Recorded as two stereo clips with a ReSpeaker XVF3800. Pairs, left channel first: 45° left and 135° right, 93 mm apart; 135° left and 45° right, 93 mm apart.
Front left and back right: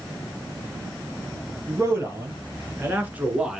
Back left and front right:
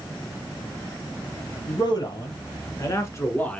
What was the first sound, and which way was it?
A man speaking, 165° left.